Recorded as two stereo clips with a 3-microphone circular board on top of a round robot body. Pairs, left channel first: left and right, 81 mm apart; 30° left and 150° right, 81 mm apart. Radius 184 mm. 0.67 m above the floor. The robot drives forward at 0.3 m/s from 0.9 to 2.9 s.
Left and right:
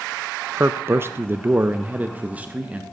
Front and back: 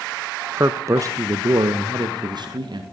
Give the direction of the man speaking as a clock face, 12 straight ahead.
4 o'clock.